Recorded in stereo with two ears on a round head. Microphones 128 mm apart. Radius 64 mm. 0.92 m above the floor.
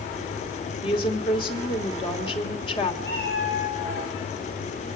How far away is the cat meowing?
About 7 m.